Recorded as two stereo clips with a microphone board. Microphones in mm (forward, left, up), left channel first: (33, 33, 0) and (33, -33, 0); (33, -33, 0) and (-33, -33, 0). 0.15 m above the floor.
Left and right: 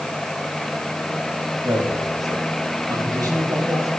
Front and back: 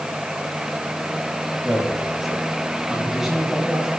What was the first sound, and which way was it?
A man speaking, 95° right.